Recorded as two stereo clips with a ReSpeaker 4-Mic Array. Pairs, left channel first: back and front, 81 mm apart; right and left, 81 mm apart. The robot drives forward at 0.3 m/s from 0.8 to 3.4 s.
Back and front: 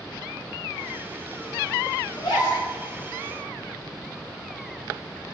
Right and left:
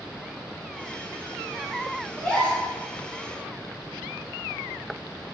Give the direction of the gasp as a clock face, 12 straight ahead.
5 o'clock.